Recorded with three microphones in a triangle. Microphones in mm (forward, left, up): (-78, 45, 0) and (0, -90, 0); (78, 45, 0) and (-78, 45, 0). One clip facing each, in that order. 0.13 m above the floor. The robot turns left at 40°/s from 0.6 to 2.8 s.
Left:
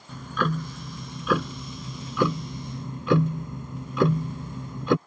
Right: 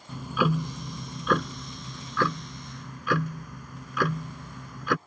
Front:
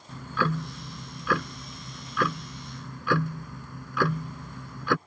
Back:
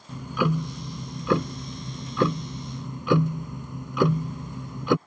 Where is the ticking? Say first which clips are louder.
Right 2 dB, back 4 dB; 130° right; by 5.0 s 140° left.